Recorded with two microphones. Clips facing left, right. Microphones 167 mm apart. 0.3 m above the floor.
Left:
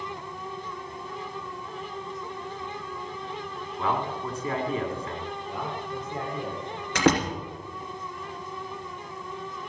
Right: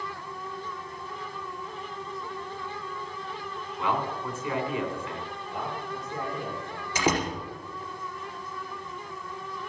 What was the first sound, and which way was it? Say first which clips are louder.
A man speaking: left 1 dB; 40° left (ahead or behind).